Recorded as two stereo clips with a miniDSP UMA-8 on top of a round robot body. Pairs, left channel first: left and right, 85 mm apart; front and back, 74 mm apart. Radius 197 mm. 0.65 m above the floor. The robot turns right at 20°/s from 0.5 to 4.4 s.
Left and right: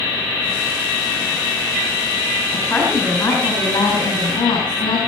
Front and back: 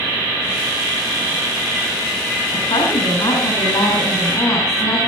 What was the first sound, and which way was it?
A woman speaking, 15° left.